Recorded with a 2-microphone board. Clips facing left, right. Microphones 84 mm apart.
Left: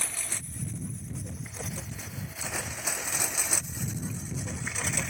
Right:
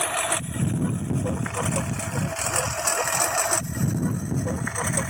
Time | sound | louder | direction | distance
0.0 | a lawn mower | right 15 dB | 70° right (ahead or behind) | ?